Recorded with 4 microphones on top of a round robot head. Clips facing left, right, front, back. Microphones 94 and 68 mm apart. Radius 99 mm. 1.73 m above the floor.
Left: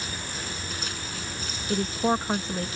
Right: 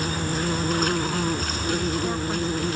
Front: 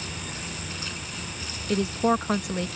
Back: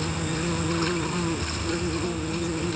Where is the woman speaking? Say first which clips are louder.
Left 2 dB, front 6 dB; 25° left.